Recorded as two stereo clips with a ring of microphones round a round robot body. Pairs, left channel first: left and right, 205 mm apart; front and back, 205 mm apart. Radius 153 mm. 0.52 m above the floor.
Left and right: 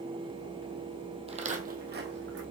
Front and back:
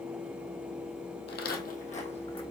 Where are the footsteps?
30° right, 1.0 m; by 2.4 s 65° right, 1.5 m.